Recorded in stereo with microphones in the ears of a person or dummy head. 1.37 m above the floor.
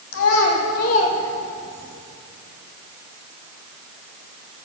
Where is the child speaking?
70° left (ahead or behind), 1.5 m; by 1.9 s 20° right (ahead or behind), 1.1 m.